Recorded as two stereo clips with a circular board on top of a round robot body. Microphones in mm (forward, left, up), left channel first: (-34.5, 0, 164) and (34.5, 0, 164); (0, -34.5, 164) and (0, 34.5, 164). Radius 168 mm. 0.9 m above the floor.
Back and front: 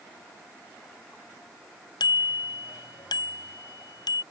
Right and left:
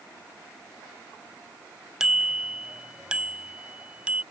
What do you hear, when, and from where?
2.0 s a bicycle bell: 170° left; by 4.2 s 165° left